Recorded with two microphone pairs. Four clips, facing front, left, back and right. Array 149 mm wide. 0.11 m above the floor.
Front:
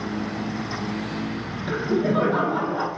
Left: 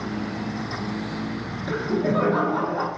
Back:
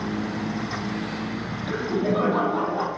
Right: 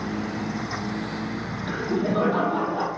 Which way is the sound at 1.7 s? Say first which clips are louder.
Left 2 dB, front 2 dB; 25° left.